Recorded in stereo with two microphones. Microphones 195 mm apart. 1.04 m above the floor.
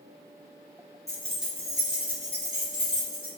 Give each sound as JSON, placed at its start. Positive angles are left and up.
{"t": 1.1, "sound": "keys jangling", "side_deg": 15, "distance_m": 0.8}